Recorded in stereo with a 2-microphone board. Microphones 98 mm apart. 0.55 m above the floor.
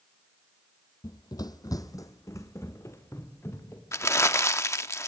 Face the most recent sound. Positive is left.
turn(degrees=25)  # may be behind; listen again after turning